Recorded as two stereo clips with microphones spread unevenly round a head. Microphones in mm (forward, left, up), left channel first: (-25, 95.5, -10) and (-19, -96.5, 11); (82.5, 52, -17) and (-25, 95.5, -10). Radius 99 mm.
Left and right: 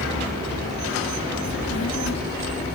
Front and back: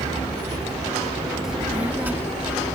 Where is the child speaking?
75° left; by 2.8 s 90° left.